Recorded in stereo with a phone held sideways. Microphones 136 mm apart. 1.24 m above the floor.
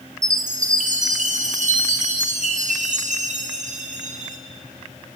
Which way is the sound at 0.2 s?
65° right (ahead or behind).